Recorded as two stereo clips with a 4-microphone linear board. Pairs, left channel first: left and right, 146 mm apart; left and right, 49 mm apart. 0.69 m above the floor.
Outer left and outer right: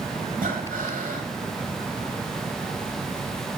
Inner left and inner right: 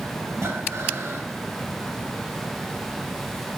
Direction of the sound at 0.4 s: 70° right (ahead or behind).